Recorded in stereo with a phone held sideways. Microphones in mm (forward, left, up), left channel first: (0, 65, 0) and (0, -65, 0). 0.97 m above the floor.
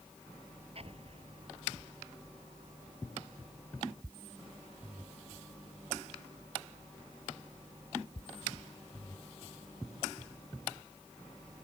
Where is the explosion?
50° right (ahead or behind).